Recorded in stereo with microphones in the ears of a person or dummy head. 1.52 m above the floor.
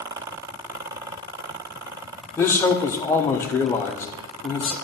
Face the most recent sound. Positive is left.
turn(degrees=10)  # may be behind; listen again after turning